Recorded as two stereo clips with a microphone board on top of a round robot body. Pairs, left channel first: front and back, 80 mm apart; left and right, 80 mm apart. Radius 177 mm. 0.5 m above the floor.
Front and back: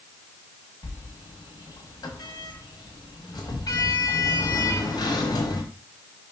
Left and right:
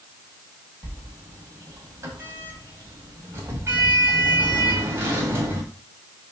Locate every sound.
0.8 s a sliding door: 35° right, 1.7 m